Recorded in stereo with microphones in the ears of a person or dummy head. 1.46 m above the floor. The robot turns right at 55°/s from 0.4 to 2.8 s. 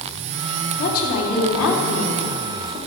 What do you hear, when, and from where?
0.8 s a woman speaking: 40° left, 3 m; by 2.8 s 150° left, 3 m